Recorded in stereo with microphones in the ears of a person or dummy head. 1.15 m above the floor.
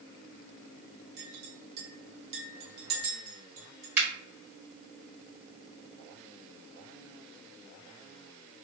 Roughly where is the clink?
Right.